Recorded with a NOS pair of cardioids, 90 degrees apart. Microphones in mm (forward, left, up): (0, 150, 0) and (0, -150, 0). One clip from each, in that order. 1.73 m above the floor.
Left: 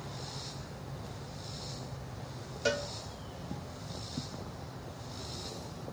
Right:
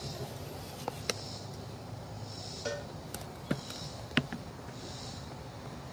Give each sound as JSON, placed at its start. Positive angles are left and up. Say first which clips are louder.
{"t": 2.6, "sound": "a cowbell", "louder": "left 7 dB", "azimuth_deg": 40, "distance_m": 2.5}